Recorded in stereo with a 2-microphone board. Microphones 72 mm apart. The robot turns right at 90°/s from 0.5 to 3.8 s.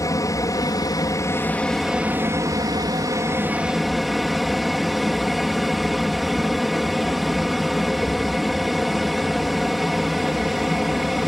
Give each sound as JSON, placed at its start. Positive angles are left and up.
{"t": 0.0, "sound": "an aircraft", "azimuth_deg": 60}